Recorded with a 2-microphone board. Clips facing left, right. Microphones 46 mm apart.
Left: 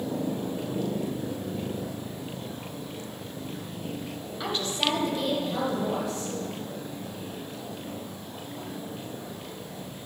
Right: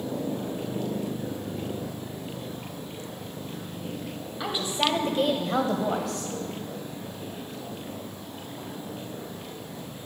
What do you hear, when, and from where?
4.4 s a woman speaking: 5° right (ahead or behind), 1.9 m; by 6.3 s 70° right (ahead or behind), 2.5 m